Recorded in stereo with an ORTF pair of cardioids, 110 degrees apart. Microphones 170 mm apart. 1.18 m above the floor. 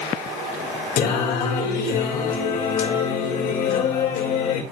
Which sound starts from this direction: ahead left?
Singing, at 1.0 s.